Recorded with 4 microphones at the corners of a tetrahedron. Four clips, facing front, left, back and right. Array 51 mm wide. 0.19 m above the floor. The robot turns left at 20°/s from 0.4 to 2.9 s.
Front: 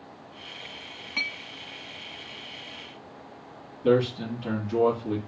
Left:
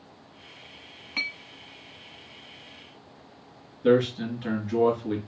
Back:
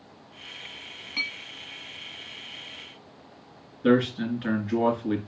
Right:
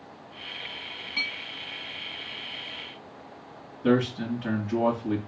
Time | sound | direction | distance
1.2 | a clink | 55° left | 0.8 m
3.8 | a man speaking | 175° right | 3 m